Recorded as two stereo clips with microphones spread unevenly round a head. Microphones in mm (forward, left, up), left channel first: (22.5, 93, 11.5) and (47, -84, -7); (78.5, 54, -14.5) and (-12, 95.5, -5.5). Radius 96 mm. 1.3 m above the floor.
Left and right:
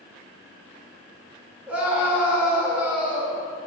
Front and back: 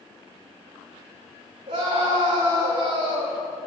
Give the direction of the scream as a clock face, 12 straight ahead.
6 o'clock.